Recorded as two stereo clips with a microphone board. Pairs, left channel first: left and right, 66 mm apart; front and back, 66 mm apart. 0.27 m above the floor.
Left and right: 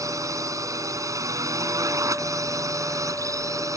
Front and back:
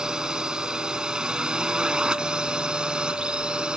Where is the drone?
105° right; by 3.8 s 110° right.